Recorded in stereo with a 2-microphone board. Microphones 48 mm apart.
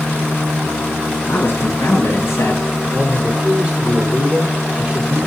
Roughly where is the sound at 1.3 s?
Left.